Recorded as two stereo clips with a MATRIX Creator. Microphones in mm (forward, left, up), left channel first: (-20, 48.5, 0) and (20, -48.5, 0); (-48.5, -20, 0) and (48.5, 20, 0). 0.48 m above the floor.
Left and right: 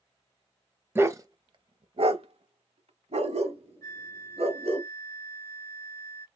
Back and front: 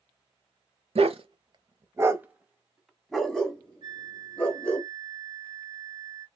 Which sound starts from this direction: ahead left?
A flute, at 3.8 s.